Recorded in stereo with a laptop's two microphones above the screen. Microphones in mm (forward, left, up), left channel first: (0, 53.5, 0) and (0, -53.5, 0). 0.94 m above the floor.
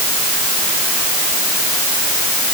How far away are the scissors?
I don't hear scissors.